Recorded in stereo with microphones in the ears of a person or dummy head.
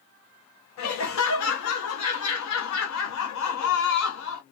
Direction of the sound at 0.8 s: 75° left (ahead or behind).